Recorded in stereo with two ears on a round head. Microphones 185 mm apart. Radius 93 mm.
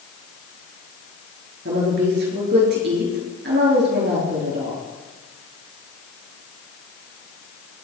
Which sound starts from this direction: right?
A woman speaking, at 1.6 s.